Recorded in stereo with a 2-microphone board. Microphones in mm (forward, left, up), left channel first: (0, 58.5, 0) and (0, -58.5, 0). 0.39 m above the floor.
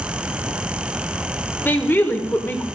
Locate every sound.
1.6 s a woman speaking: 15° left (ahead or behind), 1.2 m